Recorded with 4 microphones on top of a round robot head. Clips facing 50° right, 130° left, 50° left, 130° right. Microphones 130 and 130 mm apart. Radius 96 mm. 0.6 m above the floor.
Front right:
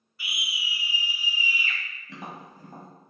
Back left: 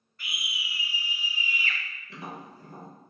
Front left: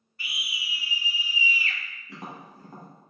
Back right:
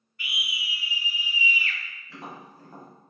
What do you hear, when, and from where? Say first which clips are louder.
0.2 s a scream: front right 2 dB, back right 2 dB; 30° left, 0.8 m
2.1 s tapping: even, even; 30° right, 1.2 m